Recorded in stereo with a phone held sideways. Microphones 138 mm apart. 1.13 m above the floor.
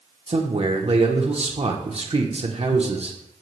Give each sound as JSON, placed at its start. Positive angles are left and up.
{"t": 0.3, "sound": "a man speaking", "side_deg": -50, "distance_m": 1.0}